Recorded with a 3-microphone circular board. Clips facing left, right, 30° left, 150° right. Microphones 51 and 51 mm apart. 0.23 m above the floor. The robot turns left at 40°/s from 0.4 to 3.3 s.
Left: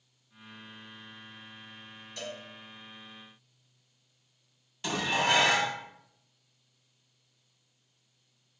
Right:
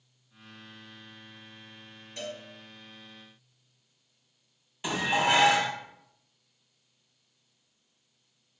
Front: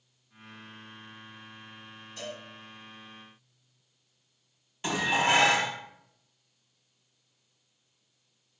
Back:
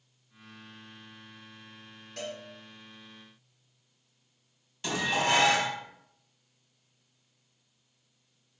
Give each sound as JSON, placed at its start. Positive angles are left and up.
{"t": 2.2, "sound": "a cowbell", "azimuth_deg": -155, "distance_m": 2.5}
{"t": 4.8, "sound": "dishes clattering", "azimuth_deg": -25, "distance_m": 1.0}